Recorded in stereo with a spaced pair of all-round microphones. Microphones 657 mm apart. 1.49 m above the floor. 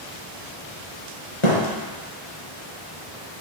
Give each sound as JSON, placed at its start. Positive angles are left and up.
{"t": 1.4, "sound": "a thud", "side_deg": 50, "distance_m": 3.0}